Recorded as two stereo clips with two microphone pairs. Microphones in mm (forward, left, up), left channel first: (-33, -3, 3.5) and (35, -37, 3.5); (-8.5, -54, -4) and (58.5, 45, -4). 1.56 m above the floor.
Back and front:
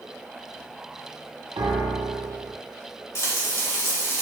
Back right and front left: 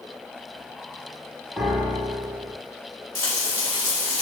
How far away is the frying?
About 1.0 m.